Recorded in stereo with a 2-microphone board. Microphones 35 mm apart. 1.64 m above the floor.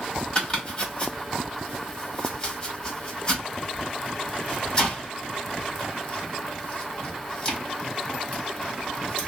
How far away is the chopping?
About 1.7 m.